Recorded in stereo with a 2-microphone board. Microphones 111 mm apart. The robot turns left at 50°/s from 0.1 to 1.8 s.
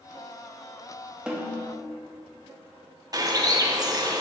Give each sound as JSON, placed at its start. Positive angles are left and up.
{"t": 1.3, "sound": "a snare drum", "side_deg": -10, "distance_m": 1.1}
{"t": 3.1, "sound": "a bird", "side_deg": -35, "distance_m": 0.6}